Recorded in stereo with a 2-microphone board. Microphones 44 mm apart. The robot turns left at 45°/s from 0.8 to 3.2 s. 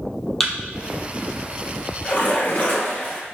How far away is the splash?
About 1.9 m.